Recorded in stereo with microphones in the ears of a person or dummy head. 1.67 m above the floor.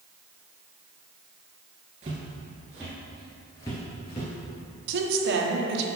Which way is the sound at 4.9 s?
70° right (ahead or behind).